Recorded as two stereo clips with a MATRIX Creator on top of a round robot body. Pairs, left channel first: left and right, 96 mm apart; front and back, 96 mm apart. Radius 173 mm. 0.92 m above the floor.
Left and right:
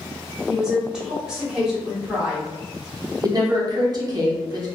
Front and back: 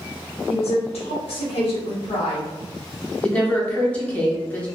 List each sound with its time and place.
0.5 s a woman speaking: 5° right, 1.2 m
3.2 s a woman speaking: 70° right, 1.0 m